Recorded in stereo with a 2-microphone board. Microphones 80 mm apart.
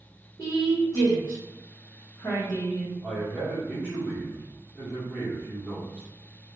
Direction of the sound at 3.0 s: 10° left (ahead or behind).